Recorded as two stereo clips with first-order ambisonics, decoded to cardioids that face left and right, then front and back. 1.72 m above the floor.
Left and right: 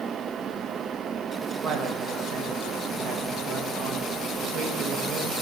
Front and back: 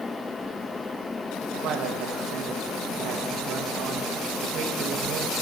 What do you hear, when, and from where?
1.6 s a man speaking: 135° right, 1.1 m